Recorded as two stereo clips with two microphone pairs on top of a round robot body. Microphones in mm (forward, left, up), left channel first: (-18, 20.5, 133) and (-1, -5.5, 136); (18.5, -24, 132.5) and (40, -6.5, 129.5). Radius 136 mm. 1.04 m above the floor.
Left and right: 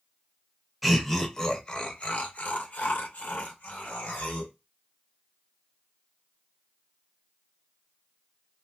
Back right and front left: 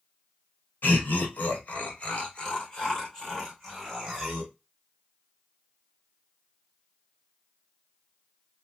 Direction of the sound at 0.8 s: 150° right.